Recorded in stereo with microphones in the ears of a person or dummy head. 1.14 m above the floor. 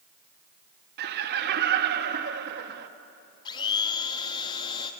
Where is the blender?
25° left (ahead or behind), 1.5 m.